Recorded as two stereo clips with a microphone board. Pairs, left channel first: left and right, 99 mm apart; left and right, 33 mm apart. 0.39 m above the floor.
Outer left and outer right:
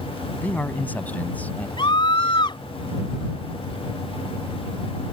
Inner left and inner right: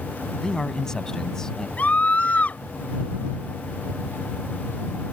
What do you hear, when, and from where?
0.4 s a man speaking: 15° left (ahead or behind)
1.8 s a scream: 50° left (ahead or behind)